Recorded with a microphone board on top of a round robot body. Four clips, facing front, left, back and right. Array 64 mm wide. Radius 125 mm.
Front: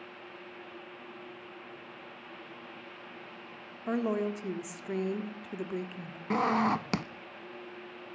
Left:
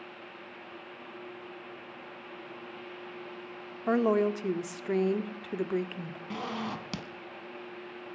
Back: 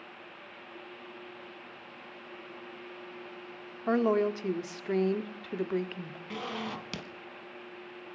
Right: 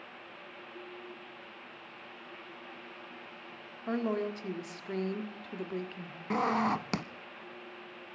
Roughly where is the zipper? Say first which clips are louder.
Right 7 dB, front 11 dB; ahead right.